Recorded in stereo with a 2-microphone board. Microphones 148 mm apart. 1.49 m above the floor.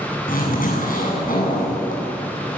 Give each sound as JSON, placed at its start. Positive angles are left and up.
{"t": 0.3, "sound": "a zipper", "side_deg": 70, "distance_m": 9.5}